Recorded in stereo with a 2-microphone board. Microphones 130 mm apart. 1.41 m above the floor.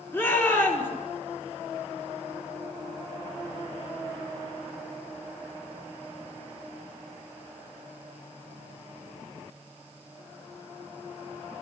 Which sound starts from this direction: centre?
A shout, at 0.1 s.